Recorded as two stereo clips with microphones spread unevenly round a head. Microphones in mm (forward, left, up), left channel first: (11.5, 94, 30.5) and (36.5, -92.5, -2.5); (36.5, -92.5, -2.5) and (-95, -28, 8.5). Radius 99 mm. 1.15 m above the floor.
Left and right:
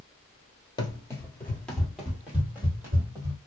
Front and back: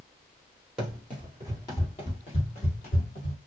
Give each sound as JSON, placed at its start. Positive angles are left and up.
{"t": 0.8, "sound": "running footsteps", "azimuth_deg": 70, "distance_m": 1.3}